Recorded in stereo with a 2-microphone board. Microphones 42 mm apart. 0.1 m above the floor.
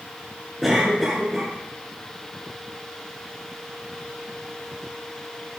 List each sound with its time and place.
0.6 s a cough: 5° right (ahead or behind), 1.7 m